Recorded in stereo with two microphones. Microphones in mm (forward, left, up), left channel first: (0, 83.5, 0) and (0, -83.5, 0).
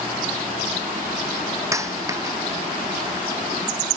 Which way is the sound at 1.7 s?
20° right (ahead or behind).